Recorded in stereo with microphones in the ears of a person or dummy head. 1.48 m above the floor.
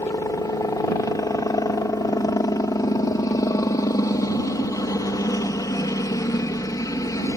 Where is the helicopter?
15° left (ahead or behind).